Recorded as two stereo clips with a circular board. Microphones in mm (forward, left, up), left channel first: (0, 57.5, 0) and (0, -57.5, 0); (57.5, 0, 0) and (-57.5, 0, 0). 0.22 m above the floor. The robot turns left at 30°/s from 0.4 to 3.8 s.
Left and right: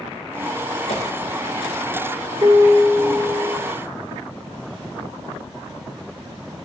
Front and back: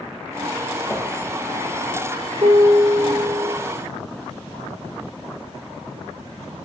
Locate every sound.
0.9 s a whoosh: 70° left, 3 m; by 1.1 s 65° left, 3 m
2.4 s a piano: 140° right, 1.7 m; by 3.6 s 175° right, 1.7 m